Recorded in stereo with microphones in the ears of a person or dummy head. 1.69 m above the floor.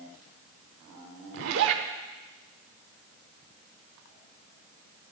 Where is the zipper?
70° right (ahead or behind), 0.9 m.